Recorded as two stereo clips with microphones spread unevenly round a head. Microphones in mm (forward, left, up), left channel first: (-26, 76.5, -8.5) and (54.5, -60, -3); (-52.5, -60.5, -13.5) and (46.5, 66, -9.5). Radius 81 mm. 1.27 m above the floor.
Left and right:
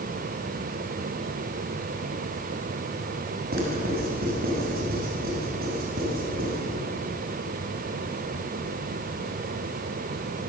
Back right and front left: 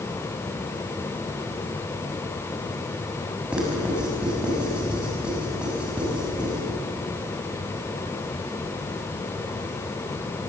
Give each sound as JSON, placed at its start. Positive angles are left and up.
{"t": 3.5, "sound": "writing", "azimuth_deg": -30, "distance_m": 7.0}